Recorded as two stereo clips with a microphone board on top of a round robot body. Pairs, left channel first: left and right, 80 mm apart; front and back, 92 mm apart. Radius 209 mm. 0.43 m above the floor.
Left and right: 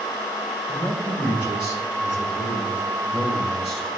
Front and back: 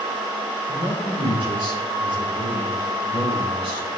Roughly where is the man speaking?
Behind.